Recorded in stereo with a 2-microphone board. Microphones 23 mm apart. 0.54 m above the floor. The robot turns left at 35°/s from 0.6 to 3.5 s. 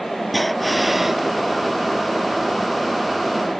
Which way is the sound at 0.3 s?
5° left (ahead or behind).